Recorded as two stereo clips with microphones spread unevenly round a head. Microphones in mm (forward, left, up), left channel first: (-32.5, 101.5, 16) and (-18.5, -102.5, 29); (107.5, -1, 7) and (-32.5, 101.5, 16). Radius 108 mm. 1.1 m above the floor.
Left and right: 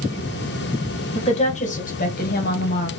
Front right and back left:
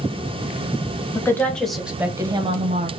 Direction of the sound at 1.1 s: 35° left.